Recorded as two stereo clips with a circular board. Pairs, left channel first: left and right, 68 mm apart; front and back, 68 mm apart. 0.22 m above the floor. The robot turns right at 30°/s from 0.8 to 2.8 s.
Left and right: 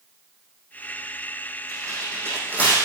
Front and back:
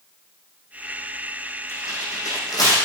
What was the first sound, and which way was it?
Tearing paper, 55° right.